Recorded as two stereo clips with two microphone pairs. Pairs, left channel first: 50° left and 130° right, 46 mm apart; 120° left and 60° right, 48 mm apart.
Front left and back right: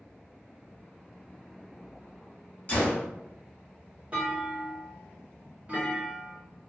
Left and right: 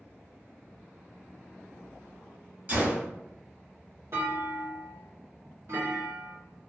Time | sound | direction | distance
2.7 | a gunshot | 5° right | 1.1 m
4.1 | a clunk | 70° right | 1.4 m